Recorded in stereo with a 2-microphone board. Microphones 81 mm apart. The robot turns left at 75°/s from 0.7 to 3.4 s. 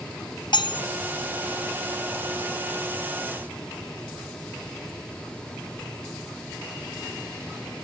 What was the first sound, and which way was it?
Cutlery clinking, 65° left (ahead or behind).